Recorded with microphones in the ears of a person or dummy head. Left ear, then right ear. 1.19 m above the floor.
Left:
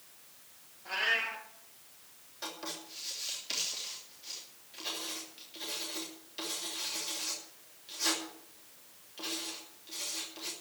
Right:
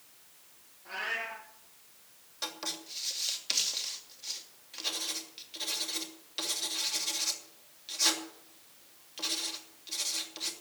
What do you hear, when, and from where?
0.8 s a cat meowing: 10° left (ahead or behind), 7 m
2.4 s writing: 40° right (ahead or behind), 3 m